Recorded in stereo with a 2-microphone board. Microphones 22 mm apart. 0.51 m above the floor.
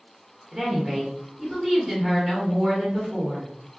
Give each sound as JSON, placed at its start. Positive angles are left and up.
{"t": 0.5, "sound": "a woman speaking", "side_deg": -20, "distance_m": 1.1}